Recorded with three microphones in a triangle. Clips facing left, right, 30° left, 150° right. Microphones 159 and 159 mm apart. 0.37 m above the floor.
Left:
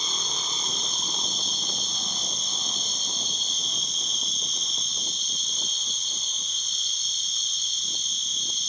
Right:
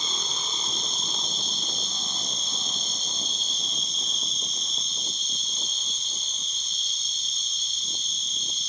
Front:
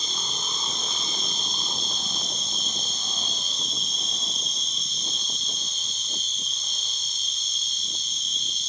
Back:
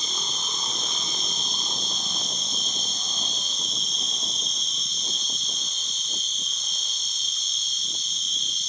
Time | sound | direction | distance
0.0 | an insect | 30° right | 1.9 m